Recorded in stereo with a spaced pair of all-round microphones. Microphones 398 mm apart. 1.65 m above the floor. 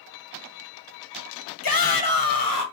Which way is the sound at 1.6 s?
55° left (ahead or behind).